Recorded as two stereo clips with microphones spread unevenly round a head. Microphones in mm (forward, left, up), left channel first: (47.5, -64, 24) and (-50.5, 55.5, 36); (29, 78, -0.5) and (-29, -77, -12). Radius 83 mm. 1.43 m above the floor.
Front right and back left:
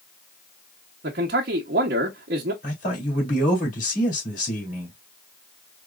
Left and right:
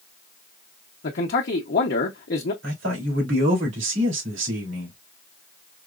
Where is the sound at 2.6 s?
90° right, 3.5 m.